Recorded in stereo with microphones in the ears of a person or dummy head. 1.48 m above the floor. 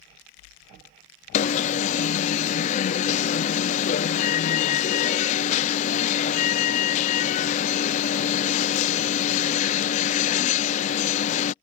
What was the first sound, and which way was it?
An alarm, 40° left (ahead or behind).